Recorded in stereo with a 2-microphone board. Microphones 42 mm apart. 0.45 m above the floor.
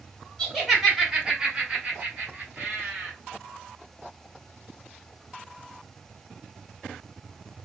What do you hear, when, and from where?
0.4 s laughter: centre (ahead or behind), 1.5 m; by 3.1 s 40° right (ahead or behind), 1.4 m